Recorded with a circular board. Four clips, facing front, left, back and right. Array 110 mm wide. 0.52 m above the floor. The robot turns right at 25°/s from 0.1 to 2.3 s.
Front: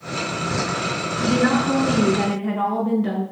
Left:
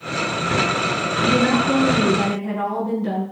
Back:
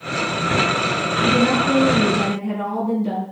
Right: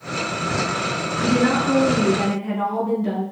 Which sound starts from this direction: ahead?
A woman speaking, at 1.2 s.